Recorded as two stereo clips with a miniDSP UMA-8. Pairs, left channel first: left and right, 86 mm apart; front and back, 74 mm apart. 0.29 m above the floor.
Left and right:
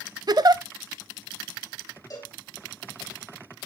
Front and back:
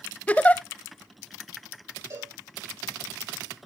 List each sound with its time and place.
0.3 s a giggle: 65° right, 0.5 m
2.1 s a cowbell: 135° left, 5.5 m